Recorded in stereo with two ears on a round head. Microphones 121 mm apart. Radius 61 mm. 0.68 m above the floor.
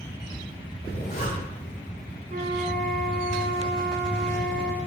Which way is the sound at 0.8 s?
60° left (ahead or behind).